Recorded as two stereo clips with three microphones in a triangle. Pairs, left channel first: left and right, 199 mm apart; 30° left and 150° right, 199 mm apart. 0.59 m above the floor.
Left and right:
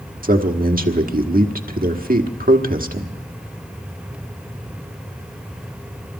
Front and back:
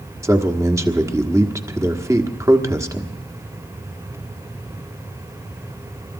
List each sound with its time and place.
0.2 s a man speaking: 80° right, 1.5 m